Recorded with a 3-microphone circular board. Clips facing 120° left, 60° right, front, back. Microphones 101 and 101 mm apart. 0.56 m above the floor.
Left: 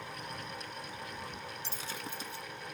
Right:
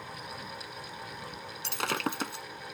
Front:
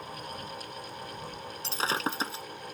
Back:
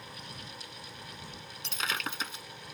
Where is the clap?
No clap in this recording.